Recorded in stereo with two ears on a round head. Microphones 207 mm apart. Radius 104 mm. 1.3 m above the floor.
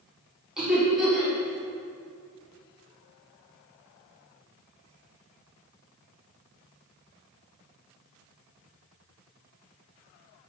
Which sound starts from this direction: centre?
Laughter, at 0.6 s.